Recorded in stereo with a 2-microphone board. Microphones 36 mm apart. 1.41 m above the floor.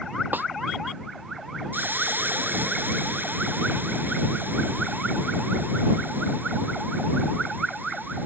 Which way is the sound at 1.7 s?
75° right (ahead or behind).